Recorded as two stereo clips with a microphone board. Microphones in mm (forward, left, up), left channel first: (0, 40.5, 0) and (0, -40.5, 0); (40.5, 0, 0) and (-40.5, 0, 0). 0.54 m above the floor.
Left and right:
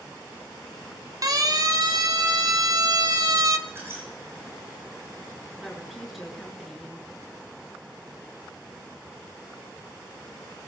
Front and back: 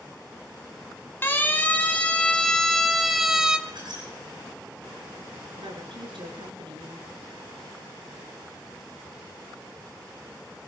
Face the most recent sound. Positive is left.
turn(degrees=180)